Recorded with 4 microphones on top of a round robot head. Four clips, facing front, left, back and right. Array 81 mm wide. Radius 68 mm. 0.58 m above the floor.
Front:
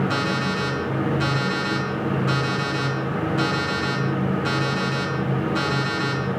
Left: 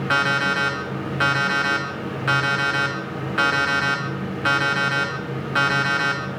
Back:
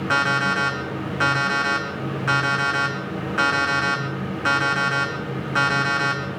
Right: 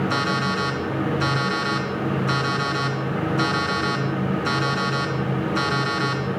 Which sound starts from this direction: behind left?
An alarm clock, at 0.1 s.